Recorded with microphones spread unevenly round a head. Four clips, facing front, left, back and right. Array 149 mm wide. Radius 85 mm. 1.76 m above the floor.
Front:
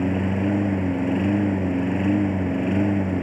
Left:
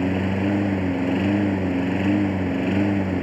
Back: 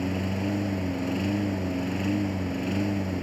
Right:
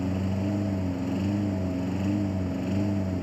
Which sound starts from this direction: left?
A lawn mower, at 0.0 s.